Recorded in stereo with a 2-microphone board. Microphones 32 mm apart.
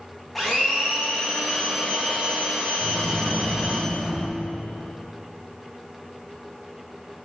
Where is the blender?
5° left (ahead or behind), 3.5 m.